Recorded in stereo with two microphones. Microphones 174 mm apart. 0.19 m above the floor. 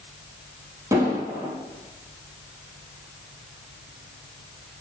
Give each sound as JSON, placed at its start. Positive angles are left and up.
{"t": 0.9, "sound": "an explosion", "side_deg": -15, "distance_m": 3.5}